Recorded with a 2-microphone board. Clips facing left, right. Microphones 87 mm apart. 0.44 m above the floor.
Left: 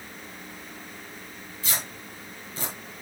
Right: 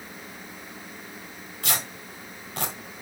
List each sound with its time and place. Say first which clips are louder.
1.6 s tearing paper: right 3 dB; 65° right (ahead or behind), 2.5 m